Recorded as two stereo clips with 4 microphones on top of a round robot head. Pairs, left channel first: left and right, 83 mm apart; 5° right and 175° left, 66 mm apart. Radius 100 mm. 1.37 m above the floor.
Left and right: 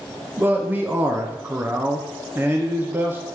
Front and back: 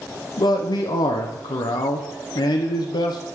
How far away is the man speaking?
About 0.5 m.